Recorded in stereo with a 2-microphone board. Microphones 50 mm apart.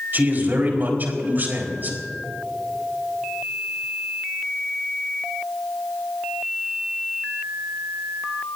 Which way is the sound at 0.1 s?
40° right (ahead or behind).